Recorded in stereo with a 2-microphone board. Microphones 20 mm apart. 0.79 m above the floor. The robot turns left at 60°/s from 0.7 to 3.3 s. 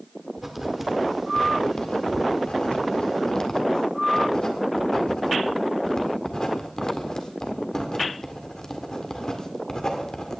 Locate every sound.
0.4 s writing: 15° right (ahead or behind), 1.9 m; by 10.4 s 40° left (ahead or behind), 1.9 m